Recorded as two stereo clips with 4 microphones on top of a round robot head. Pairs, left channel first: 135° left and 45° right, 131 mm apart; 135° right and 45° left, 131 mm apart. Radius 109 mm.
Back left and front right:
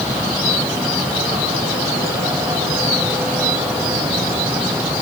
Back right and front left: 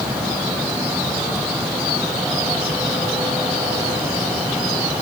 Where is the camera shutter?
No camera shutter in this recording.